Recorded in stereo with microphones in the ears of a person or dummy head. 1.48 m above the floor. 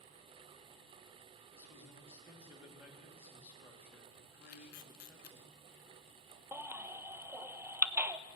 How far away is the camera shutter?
About 0.6 m.